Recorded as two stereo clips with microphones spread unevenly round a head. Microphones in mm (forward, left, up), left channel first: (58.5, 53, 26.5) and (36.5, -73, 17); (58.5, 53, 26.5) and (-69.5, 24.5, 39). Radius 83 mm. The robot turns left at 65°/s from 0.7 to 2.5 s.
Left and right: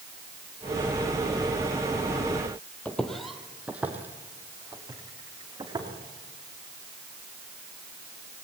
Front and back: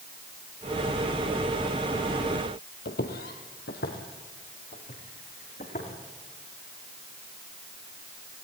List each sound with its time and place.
2.9 s footsteps: 5° left, 1.8 m; by 5.9 s 40° right, 4.5 m